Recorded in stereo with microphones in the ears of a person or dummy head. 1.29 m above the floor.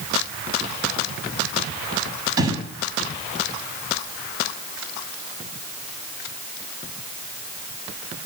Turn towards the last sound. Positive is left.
turn(degrees=-25)  # may be behind; listen again after turning